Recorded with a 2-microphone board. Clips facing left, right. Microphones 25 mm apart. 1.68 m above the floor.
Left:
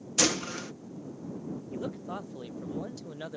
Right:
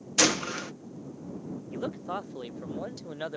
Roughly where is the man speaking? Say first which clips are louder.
Right 5 dB; right.